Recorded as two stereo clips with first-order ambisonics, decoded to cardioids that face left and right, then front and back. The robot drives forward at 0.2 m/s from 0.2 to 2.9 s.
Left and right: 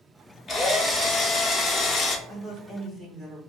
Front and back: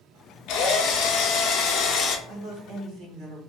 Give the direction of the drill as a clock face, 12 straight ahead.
11 o'clock.